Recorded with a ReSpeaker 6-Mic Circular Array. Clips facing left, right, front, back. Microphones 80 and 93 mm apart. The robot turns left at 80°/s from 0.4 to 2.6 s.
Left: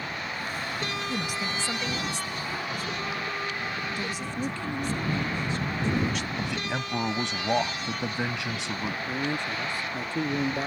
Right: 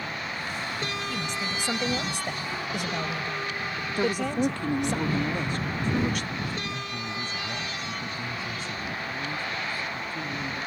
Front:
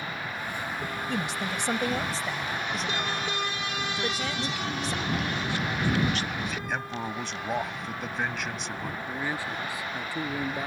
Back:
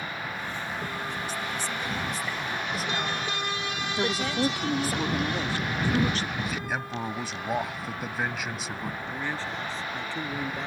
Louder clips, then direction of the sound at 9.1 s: Left 3 dB, front 2 dB; 80° left.